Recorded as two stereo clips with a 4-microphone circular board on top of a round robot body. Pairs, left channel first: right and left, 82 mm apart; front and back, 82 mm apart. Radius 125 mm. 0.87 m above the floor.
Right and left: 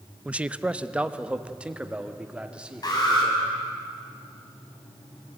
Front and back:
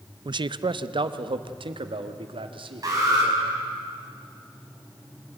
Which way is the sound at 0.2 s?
165° left.